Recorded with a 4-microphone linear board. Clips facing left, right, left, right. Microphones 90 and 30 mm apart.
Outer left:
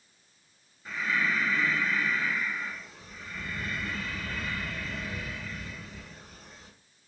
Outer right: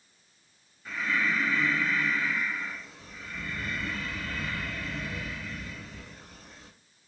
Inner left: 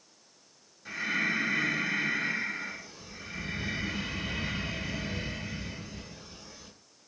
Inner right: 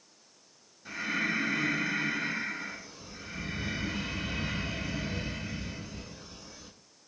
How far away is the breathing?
About 1.0 m.